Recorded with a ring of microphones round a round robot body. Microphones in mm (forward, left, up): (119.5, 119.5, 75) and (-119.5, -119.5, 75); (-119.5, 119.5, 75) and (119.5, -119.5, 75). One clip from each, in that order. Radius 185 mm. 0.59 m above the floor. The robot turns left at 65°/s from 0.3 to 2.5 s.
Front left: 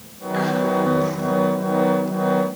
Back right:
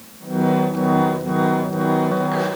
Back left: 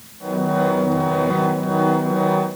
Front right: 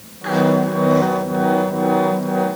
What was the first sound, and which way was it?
Only background noise.